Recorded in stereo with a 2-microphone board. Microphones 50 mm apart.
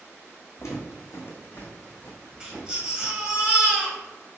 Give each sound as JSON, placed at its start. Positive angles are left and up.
{"t": 0.6, "sound": "footsteps", "side_deg": 65, "distance_m": 1.2}
{"t": 2.4, "sound": "a baby crying", "side_deg": -15, "distance_m": 1.0}